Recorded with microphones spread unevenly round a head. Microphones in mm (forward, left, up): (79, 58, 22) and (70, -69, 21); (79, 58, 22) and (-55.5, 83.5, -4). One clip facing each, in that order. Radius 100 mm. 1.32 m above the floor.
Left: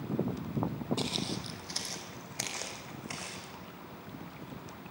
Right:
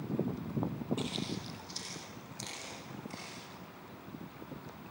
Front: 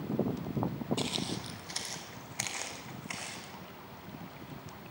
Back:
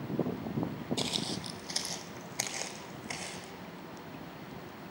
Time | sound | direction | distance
1.0 | footsteps | 125° left | 1.6 m